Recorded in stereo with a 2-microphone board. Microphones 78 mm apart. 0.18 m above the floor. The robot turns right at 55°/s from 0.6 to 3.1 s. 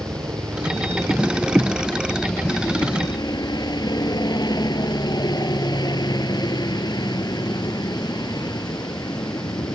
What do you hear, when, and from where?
0.0 s a helicopter: 70° right; by 9.8 s 70° left